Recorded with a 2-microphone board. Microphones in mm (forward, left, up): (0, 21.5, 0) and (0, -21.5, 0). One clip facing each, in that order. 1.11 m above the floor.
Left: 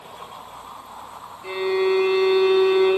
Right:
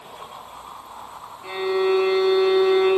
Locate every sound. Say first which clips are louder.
1.4 s a violin: even; 75° right (ahead or behind), 1.6 m